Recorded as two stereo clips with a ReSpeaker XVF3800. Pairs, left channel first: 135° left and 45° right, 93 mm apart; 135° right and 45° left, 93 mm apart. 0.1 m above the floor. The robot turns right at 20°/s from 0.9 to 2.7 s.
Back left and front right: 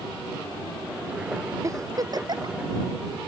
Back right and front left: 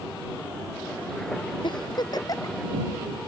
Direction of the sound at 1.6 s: 100° right.